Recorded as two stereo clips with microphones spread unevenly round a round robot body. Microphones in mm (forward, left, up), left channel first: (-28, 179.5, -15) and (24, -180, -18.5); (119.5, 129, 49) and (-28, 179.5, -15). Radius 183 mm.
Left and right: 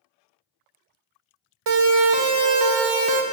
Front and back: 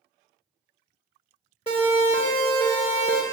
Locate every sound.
1.7 s a siren: 95° right, 2.5 m; by 3.2 s 105° right, 1.7 m